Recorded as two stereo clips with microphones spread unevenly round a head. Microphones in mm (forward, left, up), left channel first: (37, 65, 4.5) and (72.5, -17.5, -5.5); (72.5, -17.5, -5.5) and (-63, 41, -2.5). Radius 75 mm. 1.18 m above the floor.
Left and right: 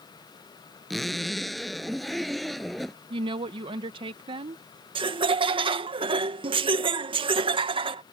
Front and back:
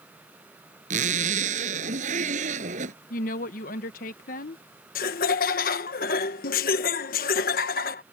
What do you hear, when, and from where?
0.9 s a zipper: 155° right
3.1 s a woman speaking: 55° right
5.0 s laughter: 55° right